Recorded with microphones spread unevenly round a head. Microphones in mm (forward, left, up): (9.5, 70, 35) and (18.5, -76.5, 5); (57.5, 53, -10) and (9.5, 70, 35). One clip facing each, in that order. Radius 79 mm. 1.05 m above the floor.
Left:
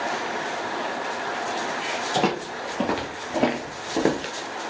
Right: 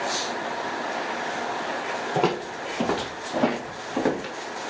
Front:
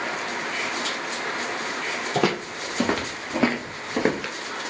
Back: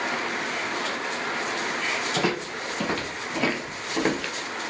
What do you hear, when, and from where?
2.1 s footsteps: 10° left, 1.7 m; by 4.3 s 100° left, 1.5 m